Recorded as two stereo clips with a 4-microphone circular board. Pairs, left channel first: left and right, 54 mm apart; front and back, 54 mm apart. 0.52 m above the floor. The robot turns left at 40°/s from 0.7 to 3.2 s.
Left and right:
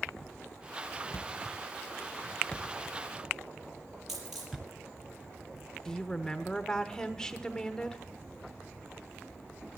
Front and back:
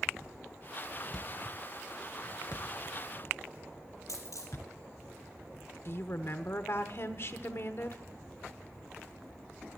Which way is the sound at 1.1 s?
75° left.